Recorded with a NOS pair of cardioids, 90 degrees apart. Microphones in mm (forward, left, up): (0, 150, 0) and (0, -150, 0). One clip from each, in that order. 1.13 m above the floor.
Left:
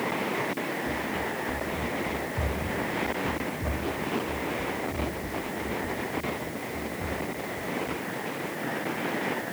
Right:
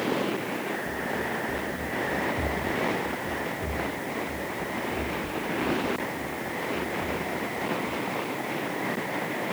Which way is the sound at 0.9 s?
35° left.